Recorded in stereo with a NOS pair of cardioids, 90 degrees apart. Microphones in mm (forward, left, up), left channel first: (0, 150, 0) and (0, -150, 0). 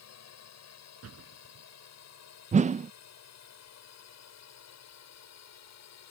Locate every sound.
0.0 s a drone: 60° left; by 6.1 s 65° left
1.0 s a door slam: 50° right
2.5 s a whoosh: 25° right